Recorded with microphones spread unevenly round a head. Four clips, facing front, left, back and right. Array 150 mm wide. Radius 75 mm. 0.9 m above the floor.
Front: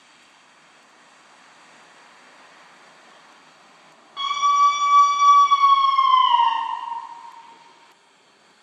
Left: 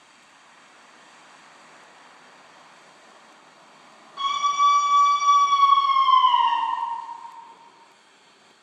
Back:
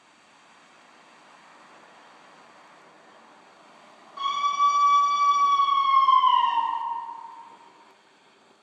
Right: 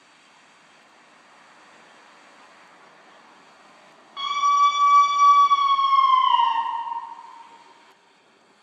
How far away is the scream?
About 3.5 m.